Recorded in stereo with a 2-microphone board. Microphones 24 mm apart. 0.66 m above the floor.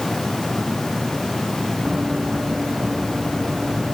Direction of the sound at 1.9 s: 40° right (ahead or behind).